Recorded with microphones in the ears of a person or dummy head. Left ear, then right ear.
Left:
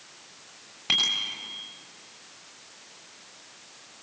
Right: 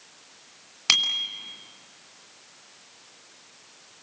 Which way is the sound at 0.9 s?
60° right (ahead or behind).